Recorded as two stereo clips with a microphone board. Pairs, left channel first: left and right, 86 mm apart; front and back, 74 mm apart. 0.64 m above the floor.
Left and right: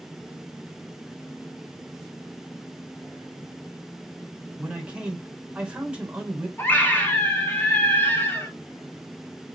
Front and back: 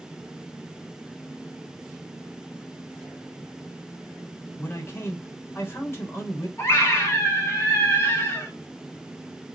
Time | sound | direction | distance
4.6 | a man speaking | 25° right | 1.0 m
6.6 | a scream | 35° left | 1.2 m